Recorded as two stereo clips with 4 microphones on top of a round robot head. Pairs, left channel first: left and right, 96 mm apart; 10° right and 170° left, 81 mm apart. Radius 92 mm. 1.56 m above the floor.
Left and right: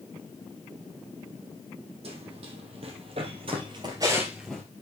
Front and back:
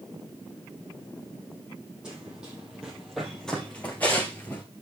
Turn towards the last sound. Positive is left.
turn(degrees=25)